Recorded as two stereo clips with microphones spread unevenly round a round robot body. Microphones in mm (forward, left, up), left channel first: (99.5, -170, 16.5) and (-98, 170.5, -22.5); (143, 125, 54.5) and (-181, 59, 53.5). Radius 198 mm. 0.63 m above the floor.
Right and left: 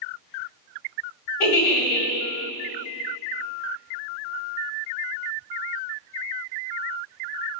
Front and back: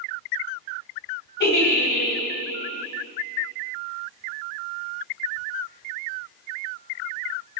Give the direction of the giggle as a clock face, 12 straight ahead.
2 o'clock.